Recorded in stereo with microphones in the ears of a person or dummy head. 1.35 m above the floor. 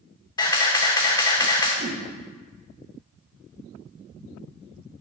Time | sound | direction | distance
0.4 | a camera shutter | 30° left (ahead or behind) | 1.1 m
1.8 | a whoosh | 40° right (ahead or behind) | 0.9 m